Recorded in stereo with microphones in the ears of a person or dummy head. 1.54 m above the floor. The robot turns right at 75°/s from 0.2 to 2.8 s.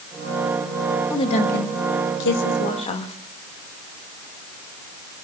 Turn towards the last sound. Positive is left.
turn(degrees=145)